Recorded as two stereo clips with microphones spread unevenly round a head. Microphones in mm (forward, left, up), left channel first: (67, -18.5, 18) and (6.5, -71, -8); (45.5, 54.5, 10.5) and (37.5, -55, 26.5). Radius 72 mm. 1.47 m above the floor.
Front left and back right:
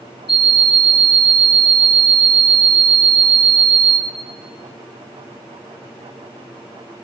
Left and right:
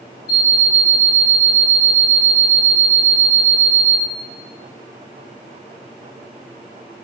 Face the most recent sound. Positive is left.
turn(degrees=85)